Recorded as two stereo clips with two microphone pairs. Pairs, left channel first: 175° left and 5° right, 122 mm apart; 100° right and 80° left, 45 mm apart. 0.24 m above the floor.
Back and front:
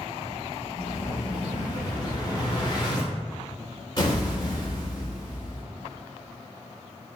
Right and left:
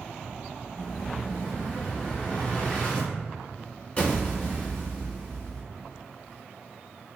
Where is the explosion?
150° right, 1.1 m.